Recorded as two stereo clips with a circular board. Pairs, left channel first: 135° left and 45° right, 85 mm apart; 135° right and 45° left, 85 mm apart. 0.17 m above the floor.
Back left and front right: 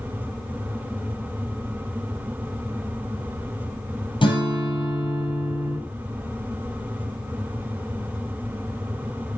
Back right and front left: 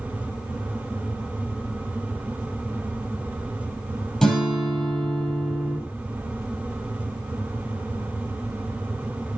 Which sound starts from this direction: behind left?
A guitar, at 4.2 s.